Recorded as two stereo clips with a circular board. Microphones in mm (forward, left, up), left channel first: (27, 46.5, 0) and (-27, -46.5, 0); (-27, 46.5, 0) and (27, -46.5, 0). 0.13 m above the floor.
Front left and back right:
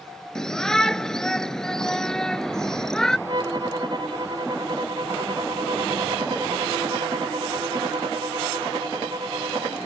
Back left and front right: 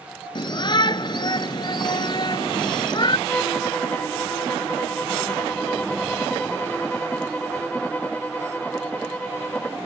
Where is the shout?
145° left.